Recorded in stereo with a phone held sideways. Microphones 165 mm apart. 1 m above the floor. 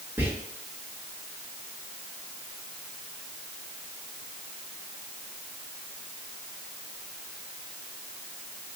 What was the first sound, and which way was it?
Whispering, 15° right (ahead or behind).